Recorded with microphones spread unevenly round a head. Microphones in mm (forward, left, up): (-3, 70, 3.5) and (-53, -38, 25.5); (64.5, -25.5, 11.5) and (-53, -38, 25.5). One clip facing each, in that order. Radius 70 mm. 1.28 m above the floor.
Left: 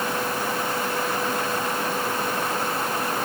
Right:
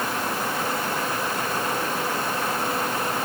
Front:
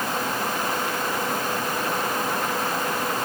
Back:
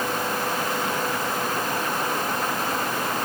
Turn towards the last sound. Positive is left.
No sound to turn to.